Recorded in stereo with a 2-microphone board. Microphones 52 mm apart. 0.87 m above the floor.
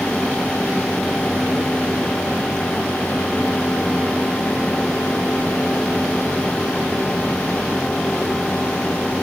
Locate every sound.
Only background noise.